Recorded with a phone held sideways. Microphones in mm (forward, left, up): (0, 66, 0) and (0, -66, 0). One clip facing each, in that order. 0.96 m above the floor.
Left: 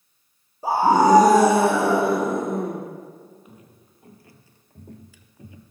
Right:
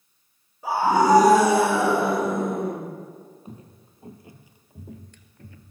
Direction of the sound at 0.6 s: 35° left (ahead or behind).